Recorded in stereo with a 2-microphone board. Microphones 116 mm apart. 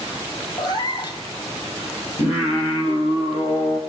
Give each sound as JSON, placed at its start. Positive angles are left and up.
{"t": 0.6, "sound": "a cat meowing", "side_deg": 40, "distance_m": 0.7}
{"t": 2.2, "sound": "singing", "side_deg": 60, "distance_m": 3.0}